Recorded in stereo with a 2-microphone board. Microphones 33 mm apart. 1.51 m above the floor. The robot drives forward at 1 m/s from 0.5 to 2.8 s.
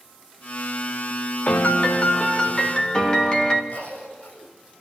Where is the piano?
60° left (ahead or behind), 1.3 m; by 3.6 s 30° left (ahead or behind), 2.5 m.